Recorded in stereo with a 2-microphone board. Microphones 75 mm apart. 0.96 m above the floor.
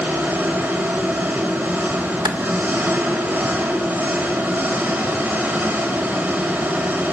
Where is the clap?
85° right, 2.5 m.